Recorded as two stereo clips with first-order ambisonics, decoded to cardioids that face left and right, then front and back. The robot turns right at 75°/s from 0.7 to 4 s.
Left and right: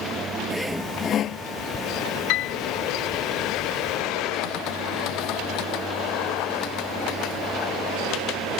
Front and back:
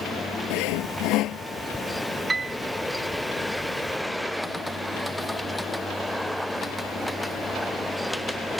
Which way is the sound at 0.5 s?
Straight ahead.